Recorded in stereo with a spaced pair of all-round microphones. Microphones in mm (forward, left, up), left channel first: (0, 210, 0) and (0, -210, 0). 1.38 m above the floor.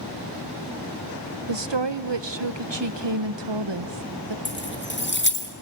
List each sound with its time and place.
1.5 s a woman speaking: 85° right, 0.9 m
4.5 s keys jangling: 25° left (ahead or behind), 1.9 m